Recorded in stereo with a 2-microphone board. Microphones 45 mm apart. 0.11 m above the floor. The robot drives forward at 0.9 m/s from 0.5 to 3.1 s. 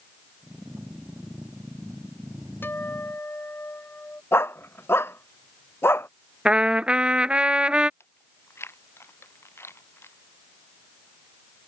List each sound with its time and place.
2.6 s a guitar: 55° left (ahead or behind); by 4.2 s 50° left (ahead or behind)
4.3 s a dog barking: 75° left (ahead or behind)
6.5 s a trumpet: 30° right (ahead or behind)
8.0 s chewing: 80° left